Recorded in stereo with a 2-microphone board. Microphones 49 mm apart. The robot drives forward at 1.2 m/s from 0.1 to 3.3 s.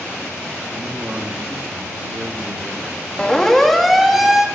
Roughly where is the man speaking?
Right.